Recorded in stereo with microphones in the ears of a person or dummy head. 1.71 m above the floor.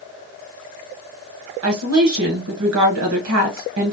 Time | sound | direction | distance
1.6 | a woman speaking | 80° right | 1.5 m